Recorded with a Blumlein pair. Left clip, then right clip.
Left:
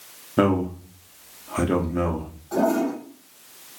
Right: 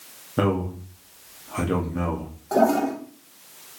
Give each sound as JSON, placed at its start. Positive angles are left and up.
{"t": 0.4, "sound": "a man speaking", "azimuth_deg": 10, "distance_m": 1.0}
{"t": 2.5, "sound": "a toilet flushing", "azimuth_deg": -55, "distance_m": 1.5}